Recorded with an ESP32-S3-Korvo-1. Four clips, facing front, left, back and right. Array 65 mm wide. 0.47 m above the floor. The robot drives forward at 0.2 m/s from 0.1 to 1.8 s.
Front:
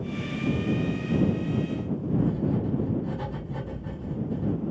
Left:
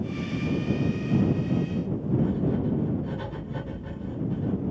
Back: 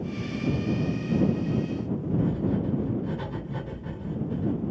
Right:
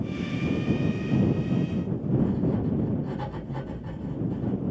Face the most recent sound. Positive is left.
turn(degrees=155)